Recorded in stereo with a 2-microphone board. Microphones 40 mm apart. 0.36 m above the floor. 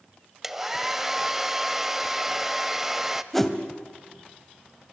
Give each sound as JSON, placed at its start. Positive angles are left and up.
{"t": 0.4, "sound": "a hair dryer", "side_deg": -10, "distance_m": 0.9}
{"t": 3.3, "sound": "a whoosh", "side_deg": 5, "distance_m": 2.0}